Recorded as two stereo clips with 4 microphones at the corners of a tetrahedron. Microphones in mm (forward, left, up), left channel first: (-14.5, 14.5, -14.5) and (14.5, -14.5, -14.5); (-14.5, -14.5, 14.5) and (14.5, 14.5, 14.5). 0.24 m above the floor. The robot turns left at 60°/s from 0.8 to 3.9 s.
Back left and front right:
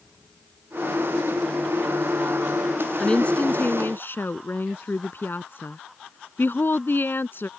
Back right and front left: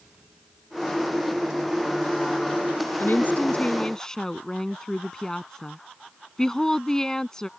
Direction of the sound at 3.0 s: 155° right.